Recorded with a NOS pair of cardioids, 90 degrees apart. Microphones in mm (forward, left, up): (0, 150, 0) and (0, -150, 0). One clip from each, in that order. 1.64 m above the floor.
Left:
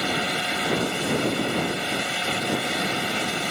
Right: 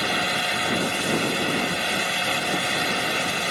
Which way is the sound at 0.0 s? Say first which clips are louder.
Right 2 dB; 35° right.